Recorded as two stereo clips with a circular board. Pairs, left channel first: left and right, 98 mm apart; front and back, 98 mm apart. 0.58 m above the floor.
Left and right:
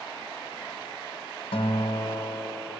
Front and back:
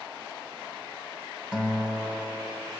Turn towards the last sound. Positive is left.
turn(degrees=100)